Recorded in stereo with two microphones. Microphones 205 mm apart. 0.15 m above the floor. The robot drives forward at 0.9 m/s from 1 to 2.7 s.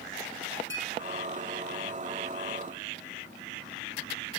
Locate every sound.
0.7 s a clink: 65° left (ahead or behind), 4 m